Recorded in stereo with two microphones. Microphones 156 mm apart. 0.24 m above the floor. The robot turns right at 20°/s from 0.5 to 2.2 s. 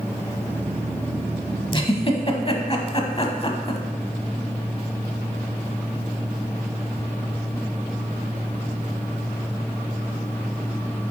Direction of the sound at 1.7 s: 30° left (ahead or behind).